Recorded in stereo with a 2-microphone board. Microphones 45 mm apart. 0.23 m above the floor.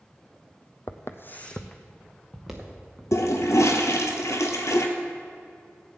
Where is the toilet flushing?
85° left, 1.2 m.